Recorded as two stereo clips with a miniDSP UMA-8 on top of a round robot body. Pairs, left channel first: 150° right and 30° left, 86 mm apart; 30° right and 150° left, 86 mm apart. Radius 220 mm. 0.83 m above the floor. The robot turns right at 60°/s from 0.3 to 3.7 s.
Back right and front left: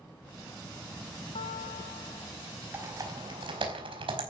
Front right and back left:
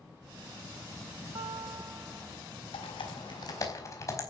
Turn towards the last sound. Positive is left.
turn(degrees=25)